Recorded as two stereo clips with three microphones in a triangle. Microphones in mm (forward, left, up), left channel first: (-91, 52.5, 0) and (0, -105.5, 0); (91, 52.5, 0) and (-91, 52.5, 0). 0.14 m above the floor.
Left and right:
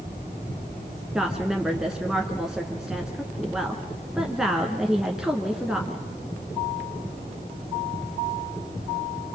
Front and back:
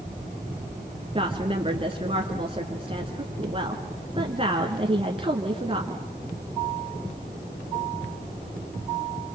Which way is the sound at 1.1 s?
145° right.